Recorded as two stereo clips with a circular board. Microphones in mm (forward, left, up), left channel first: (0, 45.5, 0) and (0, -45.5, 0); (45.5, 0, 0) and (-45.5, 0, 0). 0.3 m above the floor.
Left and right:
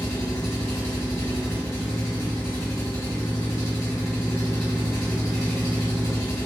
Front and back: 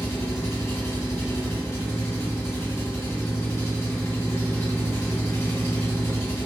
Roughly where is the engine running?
Ahead left.